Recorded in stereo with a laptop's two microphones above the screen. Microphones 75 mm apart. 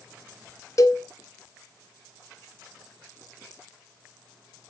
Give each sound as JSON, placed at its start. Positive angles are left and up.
{"t": 0.8, "sound": "a cowbell", "side_deg": 50, "distance_m": 0.9}